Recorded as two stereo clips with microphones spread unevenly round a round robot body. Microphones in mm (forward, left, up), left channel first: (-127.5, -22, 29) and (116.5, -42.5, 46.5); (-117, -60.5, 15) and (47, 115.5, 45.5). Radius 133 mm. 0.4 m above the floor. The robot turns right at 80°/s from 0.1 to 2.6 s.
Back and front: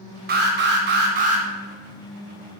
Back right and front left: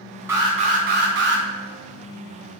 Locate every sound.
0.3 s an alarm: 40° right, 0.7 m; by 1.4 s 55° left, 0.7 m